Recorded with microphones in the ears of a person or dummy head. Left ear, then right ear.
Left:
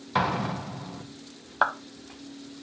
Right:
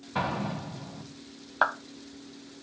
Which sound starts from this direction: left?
An explosion, at 0.1 s.